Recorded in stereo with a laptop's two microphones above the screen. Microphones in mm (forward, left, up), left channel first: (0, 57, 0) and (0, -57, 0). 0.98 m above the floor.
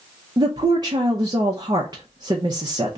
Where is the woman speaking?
35° right (ahead or behind), 0.7 m.